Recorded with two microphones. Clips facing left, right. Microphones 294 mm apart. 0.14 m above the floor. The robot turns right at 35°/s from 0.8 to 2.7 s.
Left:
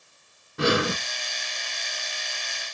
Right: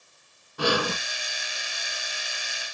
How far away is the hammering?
I don't hear hammering.